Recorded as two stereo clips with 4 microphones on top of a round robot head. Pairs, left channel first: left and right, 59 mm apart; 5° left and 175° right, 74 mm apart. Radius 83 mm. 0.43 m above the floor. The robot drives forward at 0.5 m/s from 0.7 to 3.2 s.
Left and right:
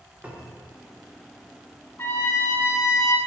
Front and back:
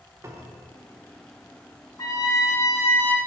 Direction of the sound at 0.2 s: 150° right.